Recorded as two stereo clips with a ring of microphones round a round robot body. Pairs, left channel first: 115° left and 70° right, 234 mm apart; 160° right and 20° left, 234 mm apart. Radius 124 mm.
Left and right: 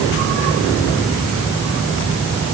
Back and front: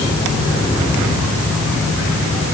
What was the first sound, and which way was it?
Only background noise.